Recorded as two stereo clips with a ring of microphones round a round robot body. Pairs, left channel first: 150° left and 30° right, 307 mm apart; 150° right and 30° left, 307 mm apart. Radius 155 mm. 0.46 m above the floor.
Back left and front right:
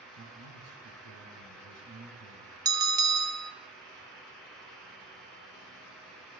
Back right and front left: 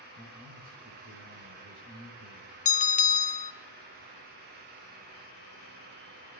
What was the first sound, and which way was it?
A man speaking, 20° right.